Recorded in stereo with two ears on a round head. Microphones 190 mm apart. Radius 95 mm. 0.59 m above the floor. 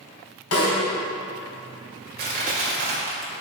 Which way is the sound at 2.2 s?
45° right (ahead or behind).